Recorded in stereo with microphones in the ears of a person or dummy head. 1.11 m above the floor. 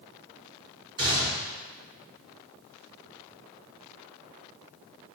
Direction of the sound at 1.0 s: 20° right (ahead or behind).